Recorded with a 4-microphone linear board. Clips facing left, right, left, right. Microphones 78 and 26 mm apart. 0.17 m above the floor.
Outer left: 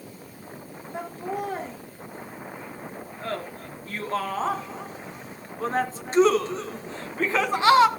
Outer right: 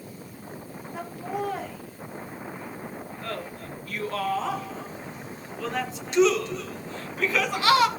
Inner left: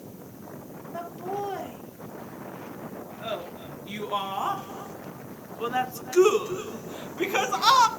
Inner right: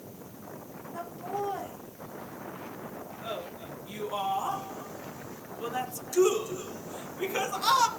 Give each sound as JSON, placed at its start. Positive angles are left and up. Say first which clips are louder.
{"t": 0.9, "sound": "laughter", "louder": "outer left 1 dB, inner left 2 dB", "side_deg": 30, "distance_m": 4.0}